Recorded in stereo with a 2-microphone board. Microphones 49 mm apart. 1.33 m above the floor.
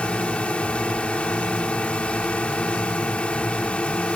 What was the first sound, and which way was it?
A drone, 25° left (ahead or behind).